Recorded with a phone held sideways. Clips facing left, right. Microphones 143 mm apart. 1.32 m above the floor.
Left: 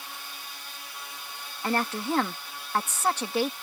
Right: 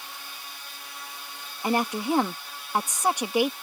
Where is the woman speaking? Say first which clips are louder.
Right 3 dB; 15° right (ahead or behind).